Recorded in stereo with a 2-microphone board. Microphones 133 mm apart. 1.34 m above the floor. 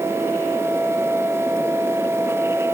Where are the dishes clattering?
I don't hear dishes clattering.